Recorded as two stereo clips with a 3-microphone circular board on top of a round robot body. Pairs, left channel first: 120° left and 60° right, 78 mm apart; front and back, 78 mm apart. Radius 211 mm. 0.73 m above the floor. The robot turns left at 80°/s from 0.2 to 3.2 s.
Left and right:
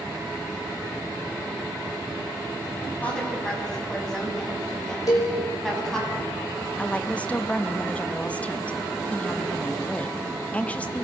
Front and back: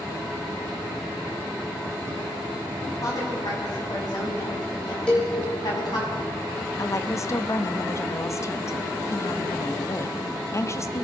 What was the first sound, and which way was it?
A woman speaking, 50° left.